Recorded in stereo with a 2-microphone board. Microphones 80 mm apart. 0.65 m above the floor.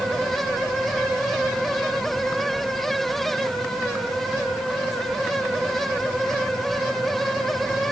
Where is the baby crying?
I don't hear a baby crying.